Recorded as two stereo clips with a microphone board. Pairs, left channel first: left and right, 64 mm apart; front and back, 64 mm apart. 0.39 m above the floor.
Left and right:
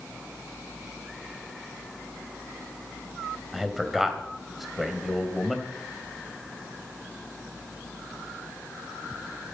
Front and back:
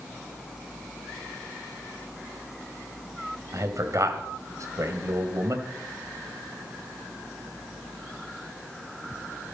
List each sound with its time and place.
3.5 s a man speaking: 175° right, 2.5 m